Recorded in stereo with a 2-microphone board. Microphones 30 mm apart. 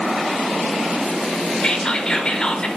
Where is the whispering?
25° left (ahead or behind), 0.9 m.